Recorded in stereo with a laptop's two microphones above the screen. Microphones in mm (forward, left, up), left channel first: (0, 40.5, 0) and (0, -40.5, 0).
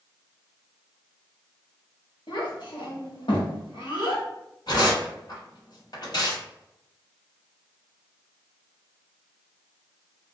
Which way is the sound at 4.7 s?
60° left (ahead or behind).